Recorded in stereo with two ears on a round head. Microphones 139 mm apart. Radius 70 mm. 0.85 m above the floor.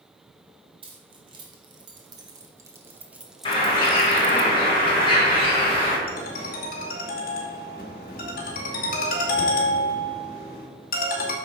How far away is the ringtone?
About 2 m.